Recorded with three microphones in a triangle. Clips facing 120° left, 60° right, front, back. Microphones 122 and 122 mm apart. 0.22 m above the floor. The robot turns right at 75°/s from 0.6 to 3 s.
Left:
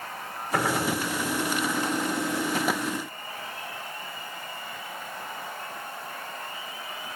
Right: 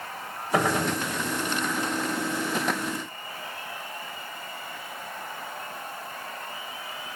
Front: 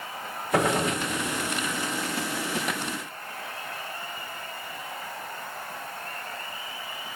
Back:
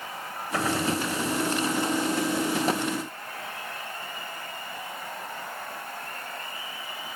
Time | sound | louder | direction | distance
0.5 | a gunshot | right 2 dB, front 3 dB | 25° left | 3 m